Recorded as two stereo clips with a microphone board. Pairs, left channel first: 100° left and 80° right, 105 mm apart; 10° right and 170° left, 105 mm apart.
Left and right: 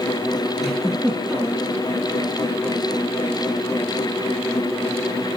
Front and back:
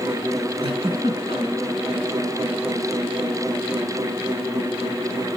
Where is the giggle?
165° right, 2.5 m.